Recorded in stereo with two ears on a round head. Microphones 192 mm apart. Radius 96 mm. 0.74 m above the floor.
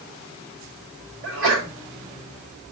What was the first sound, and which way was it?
A sneeze, 65° right (ahead or behind).